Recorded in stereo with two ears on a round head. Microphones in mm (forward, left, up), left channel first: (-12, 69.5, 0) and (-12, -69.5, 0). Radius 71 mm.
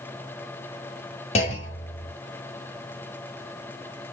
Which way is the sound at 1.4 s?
40° left (ahead or behind).